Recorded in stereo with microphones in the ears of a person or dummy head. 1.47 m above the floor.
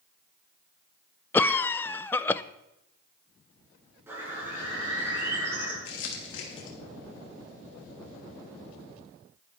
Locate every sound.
1.3 s a cough: 15° left (ahead or behind), 0.6 m
4.1 s a bird: 10° right (ahead or behind), 6.5 m
5.8 s crumpling: 80° left, 3 m